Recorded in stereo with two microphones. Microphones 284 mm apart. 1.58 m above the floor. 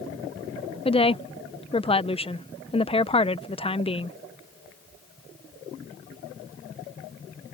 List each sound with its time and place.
0.8 s a woman speaking: 20° left (ahead or behind)